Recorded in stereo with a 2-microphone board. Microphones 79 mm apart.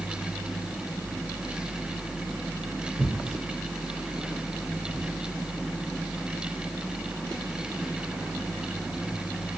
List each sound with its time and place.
3.0 s tearing paper: 40° right (ahead or behind), 0.5 m